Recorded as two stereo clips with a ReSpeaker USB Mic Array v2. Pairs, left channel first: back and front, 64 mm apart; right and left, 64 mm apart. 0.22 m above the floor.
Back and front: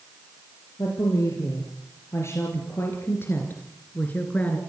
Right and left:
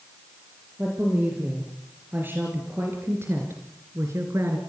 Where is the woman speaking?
150° left, 5 m; by 4.6 s 115° left, 3 m.